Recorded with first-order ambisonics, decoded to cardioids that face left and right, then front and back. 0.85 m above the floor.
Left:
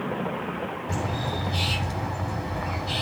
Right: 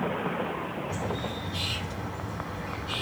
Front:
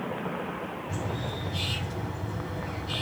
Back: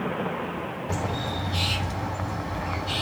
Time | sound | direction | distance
0.9 | a bird | 140° left | 2 m